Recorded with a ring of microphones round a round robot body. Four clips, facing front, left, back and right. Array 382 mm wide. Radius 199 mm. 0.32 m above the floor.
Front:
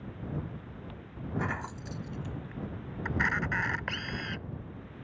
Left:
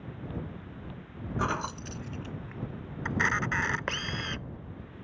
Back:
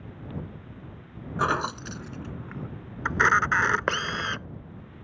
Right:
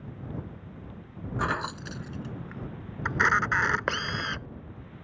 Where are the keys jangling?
175° right; by 2.7 s 160° right.